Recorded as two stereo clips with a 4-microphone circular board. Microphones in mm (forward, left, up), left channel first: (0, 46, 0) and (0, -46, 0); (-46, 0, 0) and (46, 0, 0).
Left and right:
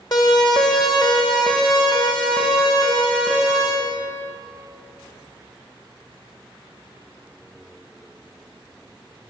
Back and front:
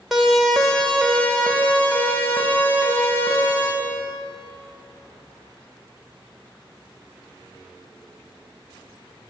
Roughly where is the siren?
Left.